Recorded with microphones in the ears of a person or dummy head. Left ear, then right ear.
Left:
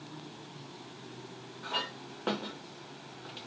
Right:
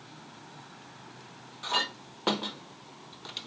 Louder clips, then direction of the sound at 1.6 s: Right 6 dB; 25° right (ahead or behind).